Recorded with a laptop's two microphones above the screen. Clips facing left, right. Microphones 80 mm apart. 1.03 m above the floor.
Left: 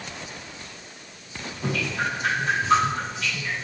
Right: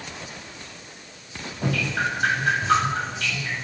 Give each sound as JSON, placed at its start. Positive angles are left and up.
{"t": 1.6, "sound": "dripping", "side_deg": -85, "distance_m": 7.0}